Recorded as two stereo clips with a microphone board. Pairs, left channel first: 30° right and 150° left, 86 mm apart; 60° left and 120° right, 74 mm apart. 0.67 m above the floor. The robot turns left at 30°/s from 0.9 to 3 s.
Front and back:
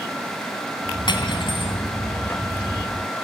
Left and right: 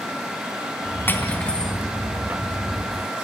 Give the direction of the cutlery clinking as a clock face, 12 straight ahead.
12 o'clock.